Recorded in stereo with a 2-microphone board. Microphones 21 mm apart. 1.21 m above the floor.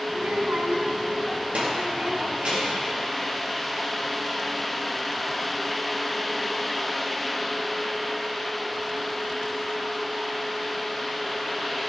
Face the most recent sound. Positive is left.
turn(degrees=-70)  # may be behind; listen again after turning